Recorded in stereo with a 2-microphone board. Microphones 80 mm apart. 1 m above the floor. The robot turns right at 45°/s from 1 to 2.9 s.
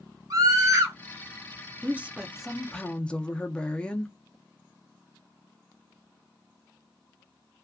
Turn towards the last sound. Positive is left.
turn(degrees=15)